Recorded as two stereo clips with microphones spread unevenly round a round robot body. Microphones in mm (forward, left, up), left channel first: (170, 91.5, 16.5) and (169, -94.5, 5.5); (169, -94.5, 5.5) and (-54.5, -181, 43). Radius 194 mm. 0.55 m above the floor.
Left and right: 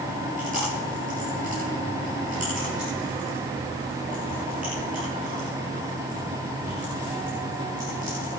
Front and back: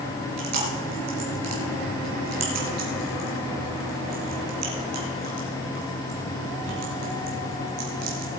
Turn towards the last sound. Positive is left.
turn(degrees=-160)